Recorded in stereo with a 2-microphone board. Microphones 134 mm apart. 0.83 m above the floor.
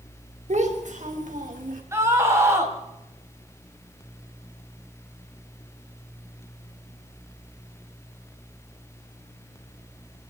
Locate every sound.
0.5 s a child speaking: 60° right (ahead or behind), 3.5 m; by 1.8 s 80° right, 4.5 m
1.9 s a scream: 20° right (ahead or behind), 5.5 m